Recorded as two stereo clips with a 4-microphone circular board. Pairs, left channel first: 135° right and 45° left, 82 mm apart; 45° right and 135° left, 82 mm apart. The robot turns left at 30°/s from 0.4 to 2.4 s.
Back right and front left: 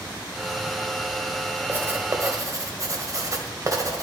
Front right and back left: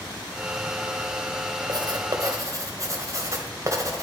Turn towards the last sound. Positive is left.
turn(degrees=90)